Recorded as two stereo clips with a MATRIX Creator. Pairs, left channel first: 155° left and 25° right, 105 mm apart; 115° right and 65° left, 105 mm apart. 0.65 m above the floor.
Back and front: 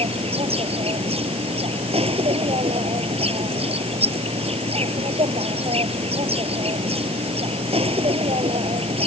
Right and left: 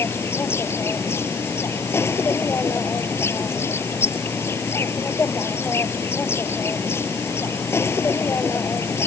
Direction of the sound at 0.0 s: 45° right.